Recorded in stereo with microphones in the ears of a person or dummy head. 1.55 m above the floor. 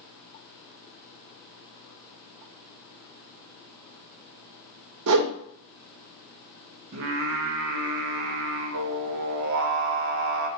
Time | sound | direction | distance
5.1 | a whoosh | 80° right | 0.6 m
6.9 | singing | 65° right (ahead or behind) | 0.6 m